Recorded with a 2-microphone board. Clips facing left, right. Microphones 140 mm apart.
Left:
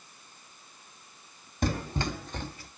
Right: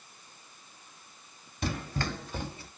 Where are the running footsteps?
45° left (ahead or behind), 1.1 m; by 2.7 s 30° right (ahead or behind), 1.1 m.